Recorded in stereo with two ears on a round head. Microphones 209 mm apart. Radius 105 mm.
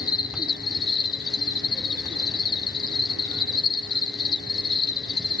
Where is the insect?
20° left (ahead or behind), 1.6 m.